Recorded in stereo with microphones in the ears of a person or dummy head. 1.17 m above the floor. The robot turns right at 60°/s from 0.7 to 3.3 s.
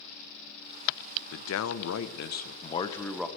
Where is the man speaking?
65° left, 0.6 m; by 3.3 s 175° right, 0.6 m.